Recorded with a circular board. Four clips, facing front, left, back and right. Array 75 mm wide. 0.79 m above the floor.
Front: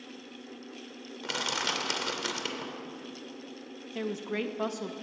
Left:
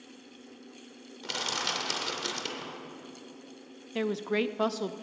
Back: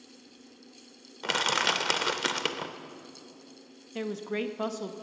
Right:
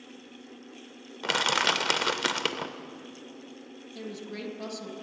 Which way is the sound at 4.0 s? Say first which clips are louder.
Left 10 dB, back 1 dB; 90° left.